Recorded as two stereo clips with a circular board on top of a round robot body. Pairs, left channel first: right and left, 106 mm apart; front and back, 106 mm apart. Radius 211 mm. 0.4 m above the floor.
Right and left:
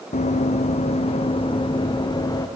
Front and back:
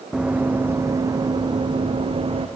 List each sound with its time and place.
0.1 s running footsteps: 100° right, 1.3 m; by 2.5 s 145° right, 1.8 m